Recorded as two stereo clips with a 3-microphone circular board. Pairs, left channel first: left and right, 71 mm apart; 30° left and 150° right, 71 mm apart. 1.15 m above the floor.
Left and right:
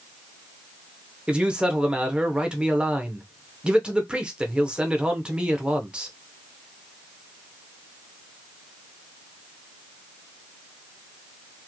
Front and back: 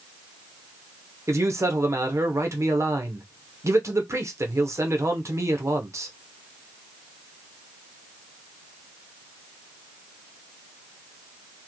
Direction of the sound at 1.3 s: 160° right.